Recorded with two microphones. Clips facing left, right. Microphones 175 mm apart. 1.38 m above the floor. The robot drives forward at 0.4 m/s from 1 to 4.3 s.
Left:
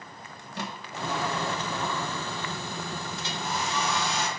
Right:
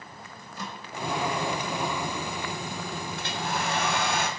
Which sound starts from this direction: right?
A hair dryer, at 3.2 s.